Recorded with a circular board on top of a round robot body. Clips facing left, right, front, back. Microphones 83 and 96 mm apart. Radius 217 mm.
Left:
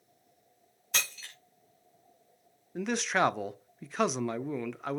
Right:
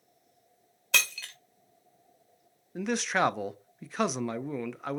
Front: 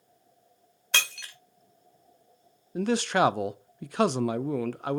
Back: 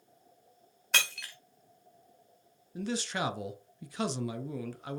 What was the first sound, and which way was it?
Breaking glass, 90° right.